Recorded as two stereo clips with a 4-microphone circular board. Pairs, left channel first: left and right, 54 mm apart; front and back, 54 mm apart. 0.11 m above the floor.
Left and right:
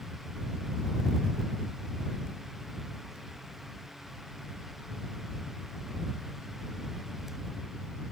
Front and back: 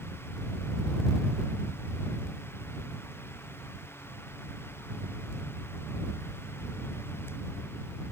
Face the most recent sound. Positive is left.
No sound to turn to.